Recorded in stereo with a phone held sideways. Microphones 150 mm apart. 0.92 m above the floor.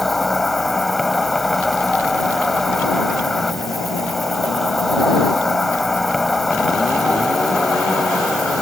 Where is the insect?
Centre (ahead or behind).